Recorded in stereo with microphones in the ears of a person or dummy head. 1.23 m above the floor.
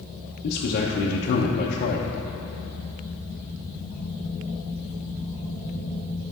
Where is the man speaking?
45° left (ahead or behind), 0.7 m.